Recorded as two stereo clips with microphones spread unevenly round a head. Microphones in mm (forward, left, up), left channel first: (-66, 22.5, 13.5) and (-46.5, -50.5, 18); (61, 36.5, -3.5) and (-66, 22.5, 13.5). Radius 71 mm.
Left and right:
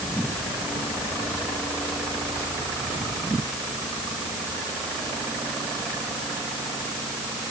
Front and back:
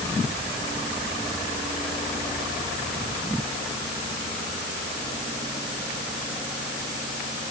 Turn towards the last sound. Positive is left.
No sound to turn to.